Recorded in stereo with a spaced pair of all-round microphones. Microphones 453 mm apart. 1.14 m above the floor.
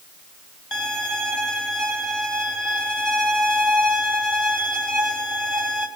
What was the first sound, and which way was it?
A violin, 65° left (ahead or behind).